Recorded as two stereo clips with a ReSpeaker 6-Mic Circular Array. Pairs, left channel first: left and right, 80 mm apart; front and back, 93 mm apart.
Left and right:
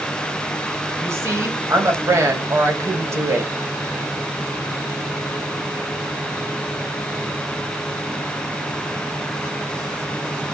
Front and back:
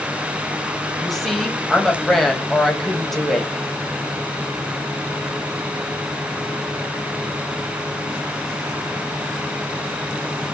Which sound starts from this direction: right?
A woman speaking, at 1.0 s.